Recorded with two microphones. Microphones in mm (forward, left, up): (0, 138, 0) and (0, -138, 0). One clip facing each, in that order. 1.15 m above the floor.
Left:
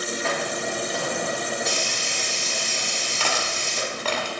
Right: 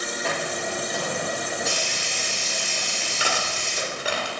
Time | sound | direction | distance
0.2 | a hiss | centre (ahead or behind) | 4 m
3.2 | cutlery clinking | 10° right (ahead or behind) | 1.8 m